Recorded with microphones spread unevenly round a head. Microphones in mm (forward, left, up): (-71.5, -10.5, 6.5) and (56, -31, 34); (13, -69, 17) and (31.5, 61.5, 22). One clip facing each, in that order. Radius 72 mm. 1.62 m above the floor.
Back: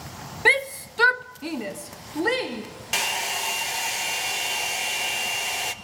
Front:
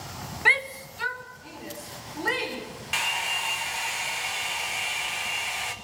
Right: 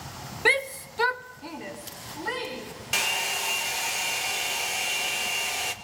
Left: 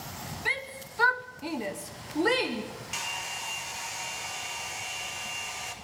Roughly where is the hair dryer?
Behind right.